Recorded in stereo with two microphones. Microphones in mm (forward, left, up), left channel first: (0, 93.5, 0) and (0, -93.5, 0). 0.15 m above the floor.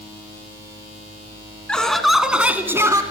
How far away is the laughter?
About 1.9 m.